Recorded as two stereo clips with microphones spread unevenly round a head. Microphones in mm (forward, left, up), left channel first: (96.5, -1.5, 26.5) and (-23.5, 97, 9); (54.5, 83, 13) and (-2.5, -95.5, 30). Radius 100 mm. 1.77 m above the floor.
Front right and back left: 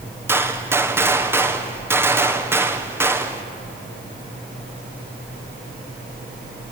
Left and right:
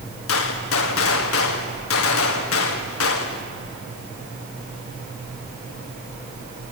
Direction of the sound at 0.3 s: 65° left.